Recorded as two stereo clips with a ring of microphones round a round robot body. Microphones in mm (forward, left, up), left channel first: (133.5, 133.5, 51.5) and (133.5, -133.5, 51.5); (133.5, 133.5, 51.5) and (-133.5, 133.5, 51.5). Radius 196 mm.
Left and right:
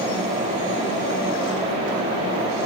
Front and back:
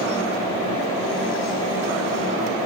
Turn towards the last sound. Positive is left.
No sound to turn to.